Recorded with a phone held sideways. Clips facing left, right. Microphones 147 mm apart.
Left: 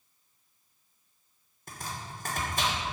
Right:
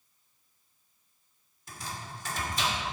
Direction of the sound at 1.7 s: 50° left (ahead or behind).